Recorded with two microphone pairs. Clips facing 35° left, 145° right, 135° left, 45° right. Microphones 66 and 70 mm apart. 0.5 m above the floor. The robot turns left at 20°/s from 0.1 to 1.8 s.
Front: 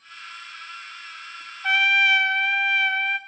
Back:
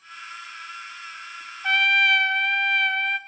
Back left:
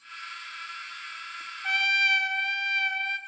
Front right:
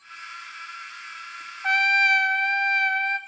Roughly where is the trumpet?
Ahead right.